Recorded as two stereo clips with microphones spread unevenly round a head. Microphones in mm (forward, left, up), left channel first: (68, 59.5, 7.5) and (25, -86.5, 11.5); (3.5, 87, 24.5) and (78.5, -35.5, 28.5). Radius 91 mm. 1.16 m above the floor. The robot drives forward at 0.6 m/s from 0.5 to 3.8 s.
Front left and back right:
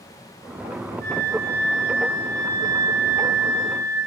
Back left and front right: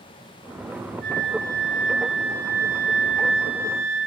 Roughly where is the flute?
Right.